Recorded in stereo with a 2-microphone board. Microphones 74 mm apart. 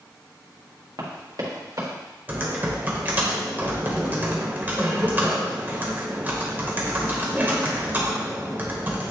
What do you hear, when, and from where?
1.0 s running footsteps: 60° right (ahead or behind), 2.5 m; by 2.0 s 45° right (ahead or behind), 3 m
2.3 s typing on a keyboard: 25° right (ahead or behind), 1.3 m